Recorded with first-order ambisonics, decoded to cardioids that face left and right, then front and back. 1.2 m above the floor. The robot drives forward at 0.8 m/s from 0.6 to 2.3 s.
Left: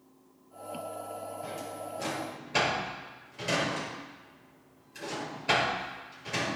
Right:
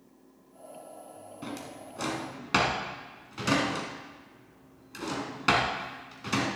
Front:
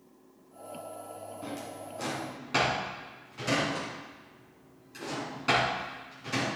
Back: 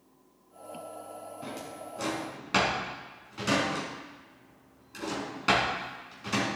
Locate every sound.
1.4 s a drawer: 95° right, 3 m; by 6.5 s 110° right, 3 m